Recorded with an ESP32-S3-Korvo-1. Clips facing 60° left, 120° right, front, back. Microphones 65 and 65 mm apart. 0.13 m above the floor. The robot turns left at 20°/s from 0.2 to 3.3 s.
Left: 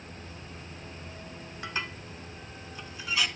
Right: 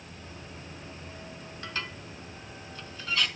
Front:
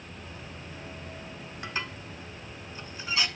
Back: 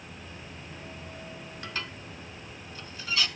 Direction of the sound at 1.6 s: 30° left.